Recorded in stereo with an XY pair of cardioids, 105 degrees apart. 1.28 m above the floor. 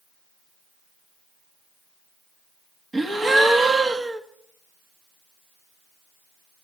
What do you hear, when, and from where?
2.9 s a gasp: 30° right, 1.7 m